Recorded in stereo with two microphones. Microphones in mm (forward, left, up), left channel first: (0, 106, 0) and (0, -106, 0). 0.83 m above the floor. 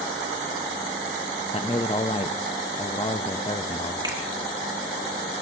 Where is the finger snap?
20° right (ahead or behind), 3 m.